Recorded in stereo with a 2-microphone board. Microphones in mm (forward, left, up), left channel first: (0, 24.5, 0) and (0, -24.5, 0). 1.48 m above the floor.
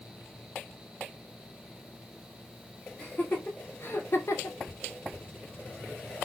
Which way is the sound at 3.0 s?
25° left (ahead or behind).